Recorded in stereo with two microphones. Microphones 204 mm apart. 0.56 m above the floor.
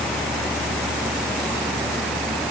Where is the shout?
No shout in this recording.